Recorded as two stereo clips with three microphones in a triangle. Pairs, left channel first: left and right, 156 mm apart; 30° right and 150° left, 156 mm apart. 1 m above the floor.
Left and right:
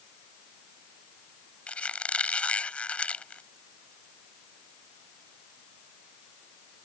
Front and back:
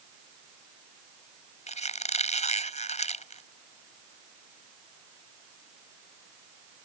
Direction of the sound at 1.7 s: 10° left.